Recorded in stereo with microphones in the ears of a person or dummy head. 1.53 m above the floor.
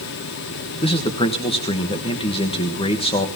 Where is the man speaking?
25° left (ahead or behind), 1.3 m.